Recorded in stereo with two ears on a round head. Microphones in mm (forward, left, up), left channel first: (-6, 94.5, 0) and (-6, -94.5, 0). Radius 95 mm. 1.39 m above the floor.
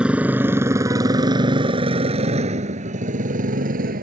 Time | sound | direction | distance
0.0 | a motorcycle | 5° right (ahead or behind) | ?